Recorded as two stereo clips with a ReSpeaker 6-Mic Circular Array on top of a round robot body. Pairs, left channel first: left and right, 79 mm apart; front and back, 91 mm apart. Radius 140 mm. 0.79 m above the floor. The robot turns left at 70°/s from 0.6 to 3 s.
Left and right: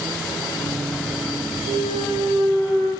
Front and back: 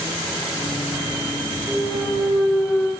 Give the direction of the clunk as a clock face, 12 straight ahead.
1 o'clock.